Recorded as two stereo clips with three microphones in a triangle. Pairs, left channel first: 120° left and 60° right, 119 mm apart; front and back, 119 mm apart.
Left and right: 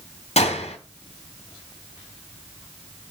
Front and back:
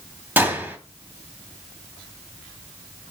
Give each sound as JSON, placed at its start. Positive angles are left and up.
{"t": 0.4, "sound": "a gunshot", "azimuth_deg": 105, "distance_m": 2.5}